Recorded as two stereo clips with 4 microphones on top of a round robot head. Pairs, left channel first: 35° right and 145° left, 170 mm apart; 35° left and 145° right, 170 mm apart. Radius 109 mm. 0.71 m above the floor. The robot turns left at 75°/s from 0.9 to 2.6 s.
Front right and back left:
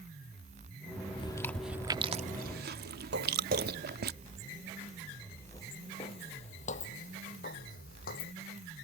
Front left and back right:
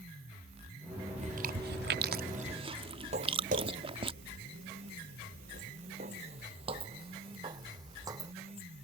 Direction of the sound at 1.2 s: 95° right.